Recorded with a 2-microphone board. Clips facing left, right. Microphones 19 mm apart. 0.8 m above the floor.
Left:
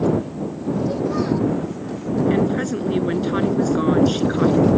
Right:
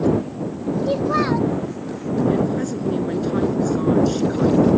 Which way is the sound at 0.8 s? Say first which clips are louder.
Right 3 dB; 65° right (ahead or behind).